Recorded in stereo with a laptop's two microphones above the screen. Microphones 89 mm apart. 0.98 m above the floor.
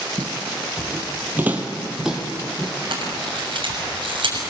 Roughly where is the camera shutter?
Right.